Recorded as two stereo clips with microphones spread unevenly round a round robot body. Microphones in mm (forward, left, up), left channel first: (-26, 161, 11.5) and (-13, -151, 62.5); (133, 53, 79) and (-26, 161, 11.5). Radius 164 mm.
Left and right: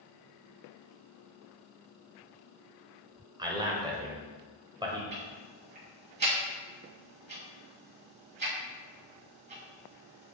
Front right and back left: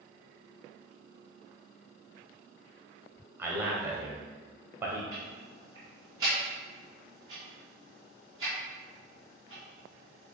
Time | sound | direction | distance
3.4 | a man speaking | 170° right | 1.2 m
5.1 | ticking | 150° right | 3 m